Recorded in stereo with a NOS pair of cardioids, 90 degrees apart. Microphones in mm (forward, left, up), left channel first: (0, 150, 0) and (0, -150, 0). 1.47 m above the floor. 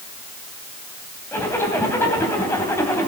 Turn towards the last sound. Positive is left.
turn(degrees=10)